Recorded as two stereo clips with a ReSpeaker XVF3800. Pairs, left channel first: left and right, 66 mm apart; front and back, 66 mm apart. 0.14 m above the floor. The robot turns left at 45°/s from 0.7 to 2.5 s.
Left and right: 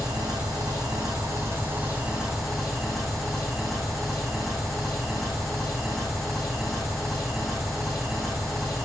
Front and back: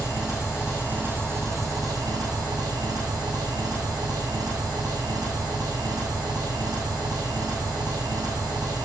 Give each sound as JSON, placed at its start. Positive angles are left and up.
{"t": 0.0, "sound": "an engine running", "azimuth_deg": -100, "distance_m": 5.0}